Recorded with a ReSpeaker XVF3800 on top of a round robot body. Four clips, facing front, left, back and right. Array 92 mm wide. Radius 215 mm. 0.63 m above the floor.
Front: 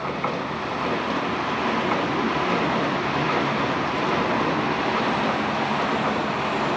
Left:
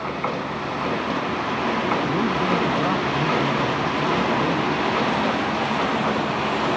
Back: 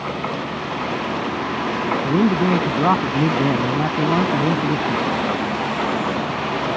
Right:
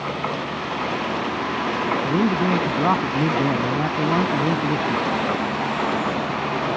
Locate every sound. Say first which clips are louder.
2.0 s a man speaking: right 2 dB, back 5 dB; 155° right; by 5.1 s 140° right